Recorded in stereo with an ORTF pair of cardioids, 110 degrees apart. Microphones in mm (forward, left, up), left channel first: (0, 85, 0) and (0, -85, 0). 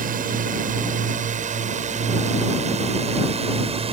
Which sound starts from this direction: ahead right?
A drone, at 0.0 s.